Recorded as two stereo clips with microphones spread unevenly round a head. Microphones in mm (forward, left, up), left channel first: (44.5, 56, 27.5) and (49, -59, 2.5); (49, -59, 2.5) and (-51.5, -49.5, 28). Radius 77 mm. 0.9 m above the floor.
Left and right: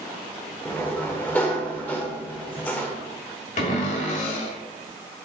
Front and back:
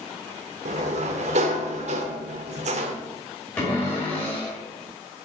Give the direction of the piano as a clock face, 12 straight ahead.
No piano in this recording.